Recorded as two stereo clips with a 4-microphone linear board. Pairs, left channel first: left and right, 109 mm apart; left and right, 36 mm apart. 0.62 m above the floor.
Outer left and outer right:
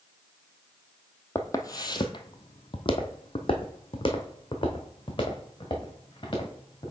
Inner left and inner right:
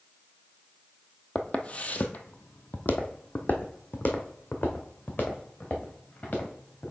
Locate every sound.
1.4 s footsteps: 25° left (ahead or behind), 0.8 m; by 6.9 s 40° left (ahead or behind), 3 m